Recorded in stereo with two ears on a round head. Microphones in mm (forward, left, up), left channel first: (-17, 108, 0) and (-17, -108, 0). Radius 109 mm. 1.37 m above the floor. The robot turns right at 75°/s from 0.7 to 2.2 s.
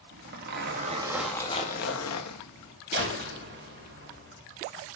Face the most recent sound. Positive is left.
turn(degrees=-45)  # may be behind; listen again after turning